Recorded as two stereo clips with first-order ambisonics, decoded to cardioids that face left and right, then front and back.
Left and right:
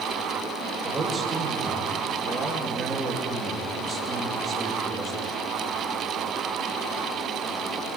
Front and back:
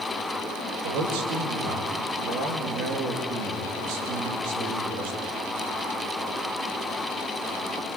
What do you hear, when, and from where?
0.8 s a man speaking: 165° right, 3 m